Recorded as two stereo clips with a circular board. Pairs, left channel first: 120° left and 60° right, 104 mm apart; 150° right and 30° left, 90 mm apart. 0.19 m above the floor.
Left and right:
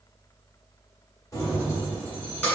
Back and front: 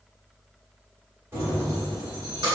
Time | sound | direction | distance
1.3 | keys jangling | 85° left | 1.2 m